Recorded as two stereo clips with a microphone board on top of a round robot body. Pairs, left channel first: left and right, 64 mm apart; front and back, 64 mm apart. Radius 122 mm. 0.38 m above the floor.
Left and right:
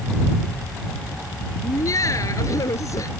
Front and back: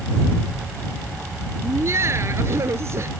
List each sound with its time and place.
1.6 s laughter: 130° left